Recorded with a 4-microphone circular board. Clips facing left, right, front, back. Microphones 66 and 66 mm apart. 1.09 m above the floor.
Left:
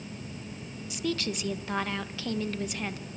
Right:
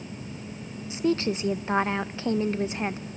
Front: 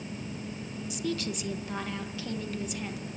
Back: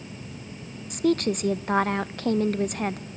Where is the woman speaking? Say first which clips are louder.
Right 7 dB, back 11 dB; 150° right, 0.8 m.